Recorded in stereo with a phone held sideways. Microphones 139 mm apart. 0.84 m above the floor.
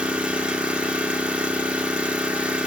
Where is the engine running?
10° right (ahead or behind), 0.8 m.